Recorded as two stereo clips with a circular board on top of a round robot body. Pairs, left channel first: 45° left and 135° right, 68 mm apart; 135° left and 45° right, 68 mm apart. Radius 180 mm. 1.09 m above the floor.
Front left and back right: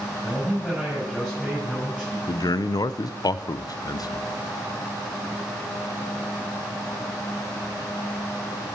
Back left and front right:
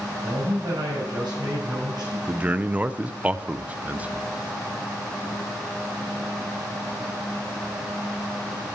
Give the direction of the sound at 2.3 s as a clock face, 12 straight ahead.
11 o'clock.